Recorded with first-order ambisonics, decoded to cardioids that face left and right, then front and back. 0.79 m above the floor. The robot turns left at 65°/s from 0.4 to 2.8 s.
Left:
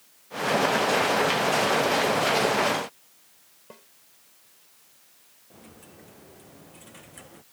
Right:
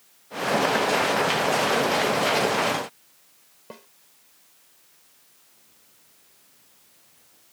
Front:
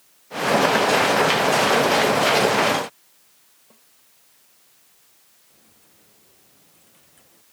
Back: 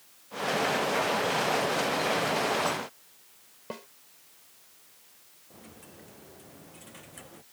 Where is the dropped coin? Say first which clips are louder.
Left 10 dB, back 11 dB; 125° left.